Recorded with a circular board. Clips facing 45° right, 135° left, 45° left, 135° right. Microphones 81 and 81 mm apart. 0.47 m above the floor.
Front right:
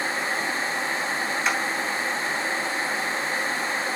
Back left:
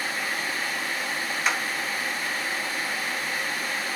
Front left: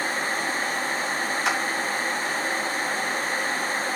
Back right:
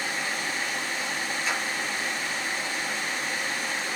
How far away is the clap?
About 3 m.